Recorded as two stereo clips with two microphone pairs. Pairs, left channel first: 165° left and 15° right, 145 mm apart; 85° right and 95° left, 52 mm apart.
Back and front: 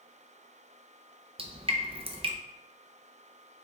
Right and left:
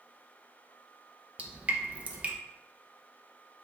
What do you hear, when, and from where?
1.4 s dripping: 35° left, 0.5 m